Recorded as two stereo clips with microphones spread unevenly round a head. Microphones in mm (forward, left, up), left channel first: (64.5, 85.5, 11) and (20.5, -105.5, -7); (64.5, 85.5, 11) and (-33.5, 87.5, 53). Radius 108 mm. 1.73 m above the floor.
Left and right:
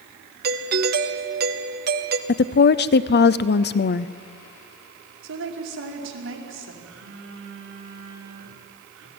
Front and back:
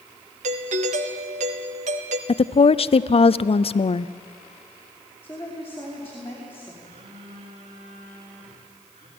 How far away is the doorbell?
About 1.3 m.